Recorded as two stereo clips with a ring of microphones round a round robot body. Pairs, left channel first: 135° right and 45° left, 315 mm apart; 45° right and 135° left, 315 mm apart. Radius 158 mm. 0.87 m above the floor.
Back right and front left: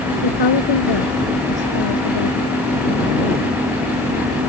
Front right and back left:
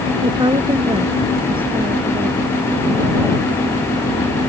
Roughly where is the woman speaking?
Behind right.